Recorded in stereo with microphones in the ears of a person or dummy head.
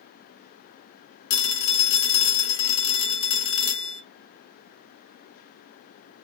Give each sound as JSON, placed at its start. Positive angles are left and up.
{"t": 1.3, "sound": "a phone ringing", "side_deg": 75, "distance_m": 1.8}